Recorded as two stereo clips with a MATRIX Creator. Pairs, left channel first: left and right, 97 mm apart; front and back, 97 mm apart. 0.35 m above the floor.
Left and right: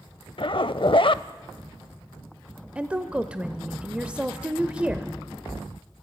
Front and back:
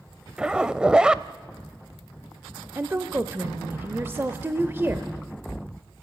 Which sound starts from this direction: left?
A zipper, at 0.4 s.